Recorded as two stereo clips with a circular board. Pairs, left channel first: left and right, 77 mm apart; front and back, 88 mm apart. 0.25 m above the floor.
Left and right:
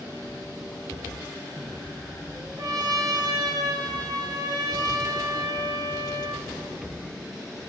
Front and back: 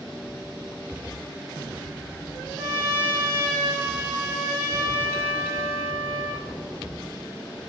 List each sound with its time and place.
2.6 s a trumpet: 115° right, 1.9 m